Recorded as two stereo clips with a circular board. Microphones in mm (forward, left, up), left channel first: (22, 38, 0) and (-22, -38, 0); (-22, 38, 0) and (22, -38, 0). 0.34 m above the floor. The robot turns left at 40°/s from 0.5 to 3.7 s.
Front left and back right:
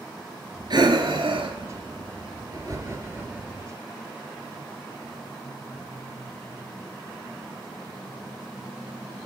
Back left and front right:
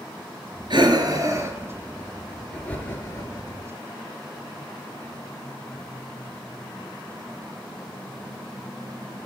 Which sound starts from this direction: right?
Breathing, at 0.7 s.